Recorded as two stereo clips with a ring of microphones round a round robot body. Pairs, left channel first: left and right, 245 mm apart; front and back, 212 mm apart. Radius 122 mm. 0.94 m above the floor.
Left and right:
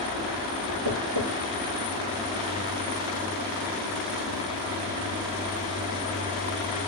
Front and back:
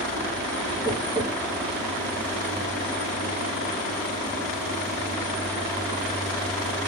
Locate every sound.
0.8 s tapping: 90° right, 2.5 m